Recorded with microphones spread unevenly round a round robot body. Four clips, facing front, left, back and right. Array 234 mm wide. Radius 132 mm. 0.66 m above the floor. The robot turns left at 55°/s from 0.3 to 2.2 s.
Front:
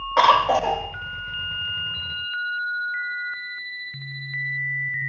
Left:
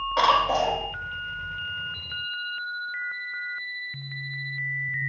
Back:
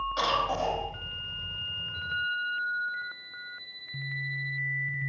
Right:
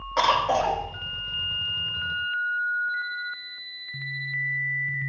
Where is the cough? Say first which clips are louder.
Even, front 13 dB; straight ahead, 2.5 m; by 0.8 s 30° right, 2.5 m.